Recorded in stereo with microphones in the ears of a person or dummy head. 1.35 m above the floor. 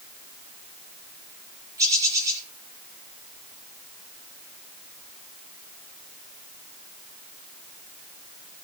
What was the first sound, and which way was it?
A bird, 20° right (ahead or behind).